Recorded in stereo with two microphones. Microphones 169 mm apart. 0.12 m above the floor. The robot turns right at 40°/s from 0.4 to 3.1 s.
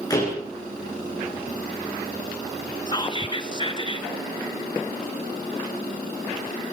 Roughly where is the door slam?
Left.